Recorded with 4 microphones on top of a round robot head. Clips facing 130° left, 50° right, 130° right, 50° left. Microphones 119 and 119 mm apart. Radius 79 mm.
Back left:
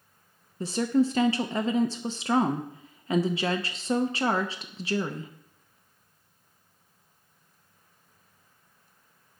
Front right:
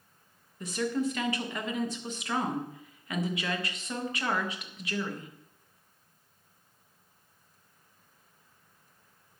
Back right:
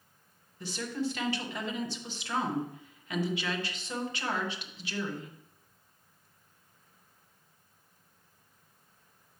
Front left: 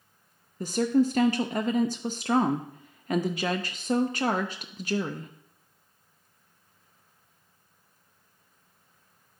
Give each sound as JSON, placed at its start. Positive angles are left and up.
{"t": 0.6, "sound": "a woman speaking", "azimuth_deg": 80, "distance_m": 0.7}